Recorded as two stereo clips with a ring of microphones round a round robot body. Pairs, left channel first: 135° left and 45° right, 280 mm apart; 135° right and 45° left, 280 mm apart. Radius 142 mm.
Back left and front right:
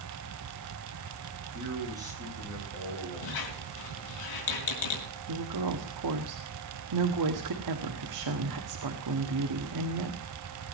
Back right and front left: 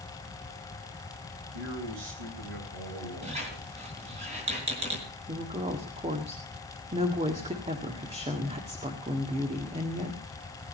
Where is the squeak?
115° left, 3.5 m.